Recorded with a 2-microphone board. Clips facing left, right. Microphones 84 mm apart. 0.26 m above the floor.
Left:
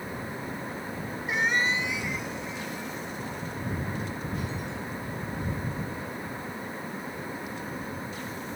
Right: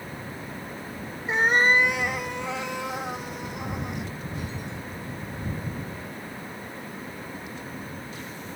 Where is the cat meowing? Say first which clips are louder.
Right 6 dB; 30° right (ahead or behind); by 4.1 s 80° right.